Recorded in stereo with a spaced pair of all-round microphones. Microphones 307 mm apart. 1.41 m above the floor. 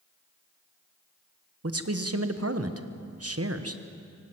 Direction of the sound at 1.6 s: 55° right (ahead or behind).